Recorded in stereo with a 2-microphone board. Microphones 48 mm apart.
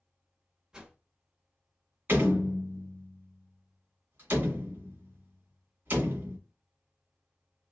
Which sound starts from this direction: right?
A door slam, at 2.1 s.